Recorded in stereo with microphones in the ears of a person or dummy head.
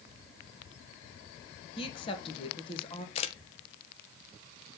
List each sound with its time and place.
1.8 s a woman speaking: 30° left (ahead or behind), 1.7 m
3.1 s a camera shutter: 35° left (ahead or behind), 1.0 m